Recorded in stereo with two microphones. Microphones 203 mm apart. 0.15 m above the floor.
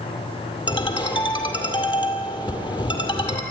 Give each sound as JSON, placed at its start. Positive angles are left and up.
{"t": 0.7, "sound": "a ringtone", "side_deg": 25, "distance_m": 2.0}